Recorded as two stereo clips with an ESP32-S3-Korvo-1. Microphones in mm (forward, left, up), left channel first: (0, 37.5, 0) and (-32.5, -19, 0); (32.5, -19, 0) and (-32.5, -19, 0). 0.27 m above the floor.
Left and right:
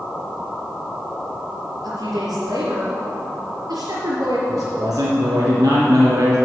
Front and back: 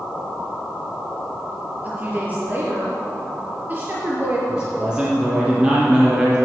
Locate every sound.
1.8 s a woman speaking: 115° right, 5.5 m
4.5 s a man speaking: 105° right, 4.5 m